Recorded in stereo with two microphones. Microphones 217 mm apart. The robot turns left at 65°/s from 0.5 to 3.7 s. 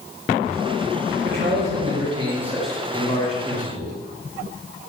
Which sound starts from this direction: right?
A man speaking, at 1.2 s.